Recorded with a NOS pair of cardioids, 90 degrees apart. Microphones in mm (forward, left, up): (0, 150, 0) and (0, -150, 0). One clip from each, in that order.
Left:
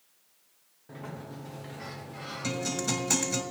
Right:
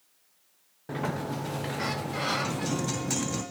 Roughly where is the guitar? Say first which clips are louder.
Even; ahead left.